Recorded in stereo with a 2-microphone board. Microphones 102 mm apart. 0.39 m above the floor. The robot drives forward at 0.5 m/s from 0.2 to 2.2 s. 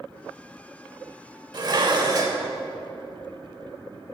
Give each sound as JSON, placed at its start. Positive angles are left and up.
{"t": 1.5, "sound": "dishes clattering", "side_deg": -50, "distance_m": 0.8}